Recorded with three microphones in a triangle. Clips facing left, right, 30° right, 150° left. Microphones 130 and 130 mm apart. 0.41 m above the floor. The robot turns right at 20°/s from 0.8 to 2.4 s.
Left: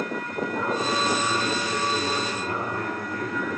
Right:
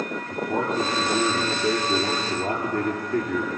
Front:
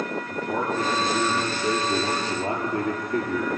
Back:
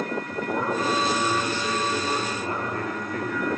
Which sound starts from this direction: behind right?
A man speaking, at 0.3 s.